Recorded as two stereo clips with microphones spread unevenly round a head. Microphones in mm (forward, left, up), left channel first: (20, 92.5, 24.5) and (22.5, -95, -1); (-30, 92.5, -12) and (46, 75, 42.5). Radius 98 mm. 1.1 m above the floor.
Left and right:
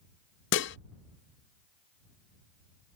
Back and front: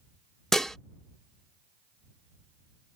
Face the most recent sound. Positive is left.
turn(degrees=70)